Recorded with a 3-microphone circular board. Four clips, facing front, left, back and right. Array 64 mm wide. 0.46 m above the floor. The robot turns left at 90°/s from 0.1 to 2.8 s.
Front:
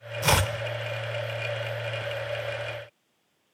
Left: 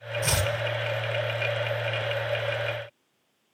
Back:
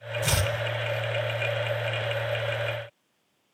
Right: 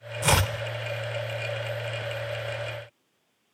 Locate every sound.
0.2 s chopping: 35° right, 0.6 m; by 0.5 s 65° right, 0.6 m